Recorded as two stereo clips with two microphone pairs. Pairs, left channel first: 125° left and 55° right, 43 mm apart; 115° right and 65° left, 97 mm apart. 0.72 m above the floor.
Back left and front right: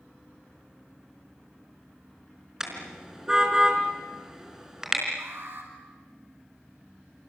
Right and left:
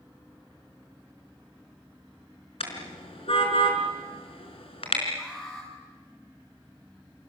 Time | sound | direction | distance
2.6 | a car horn | 130° right | 4.5 m
5.2 | an alarm | 35° right | 9 m